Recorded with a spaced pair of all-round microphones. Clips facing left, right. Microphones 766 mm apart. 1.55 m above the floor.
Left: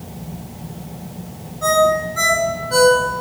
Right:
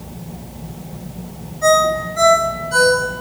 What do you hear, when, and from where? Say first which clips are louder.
1.6 s a ringtone: right 1 dB; 70° left (ahead or behind), 3 m